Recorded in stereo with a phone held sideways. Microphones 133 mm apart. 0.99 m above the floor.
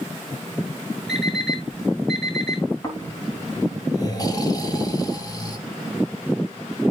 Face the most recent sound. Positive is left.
turn(degrees=30)  # may be behind; listen again after turning